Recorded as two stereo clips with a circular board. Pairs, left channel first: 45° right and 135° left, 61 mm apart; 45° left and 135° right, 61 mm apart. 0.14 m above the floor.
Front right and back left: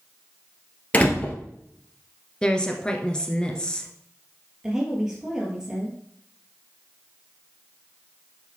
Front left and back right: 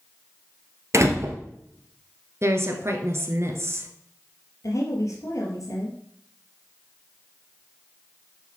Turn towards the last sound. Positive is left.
turn(degrees=55)